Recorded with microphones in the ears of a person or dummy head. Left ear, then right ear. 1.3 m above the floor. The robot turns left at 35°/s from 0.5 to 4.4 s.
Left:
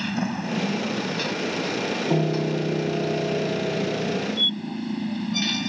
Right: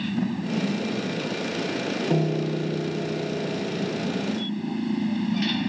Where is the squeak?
60° left (ahead or behind).